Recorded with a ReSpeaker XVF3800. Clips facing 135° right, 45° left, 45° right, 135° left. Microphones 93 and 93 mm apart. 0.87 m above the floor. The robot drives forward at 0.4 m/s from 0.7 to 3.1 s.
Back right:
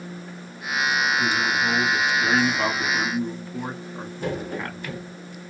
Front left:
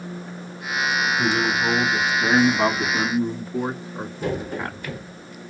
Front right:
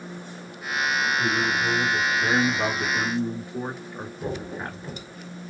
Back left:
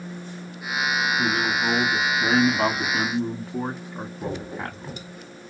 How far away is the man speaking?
About 1.5 m.